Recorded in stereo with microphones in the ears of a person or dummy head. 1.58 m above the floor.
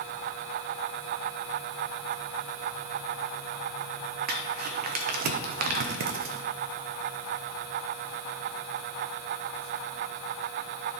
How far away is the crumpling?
About 0.9 m.